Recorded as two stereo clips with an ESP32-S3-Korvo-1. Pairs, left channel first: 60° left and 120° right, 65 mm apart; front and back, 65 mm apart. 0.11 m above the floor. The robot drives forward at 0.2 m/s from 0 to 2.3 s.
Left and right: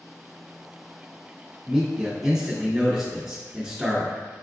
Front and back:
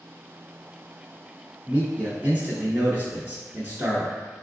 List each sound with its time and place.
1.7 s a man speaking: 165° left, 1.2 m; by 4.1 s 170° left, 1.2 m